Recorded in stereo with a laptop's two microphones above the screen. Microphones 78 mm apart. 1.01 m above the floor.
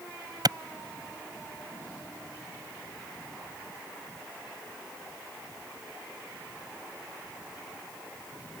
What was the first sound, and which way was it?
A clap, 60° right (ahead or behind).